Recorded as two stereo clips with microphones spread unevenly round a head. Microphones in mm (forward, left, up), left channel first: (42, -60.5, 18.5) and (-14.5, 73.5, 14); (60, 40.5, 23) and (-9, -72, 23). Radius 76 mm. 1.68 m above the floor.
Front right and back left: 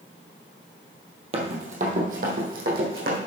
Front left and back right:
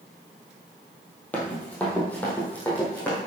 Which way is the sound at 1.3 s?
135° left.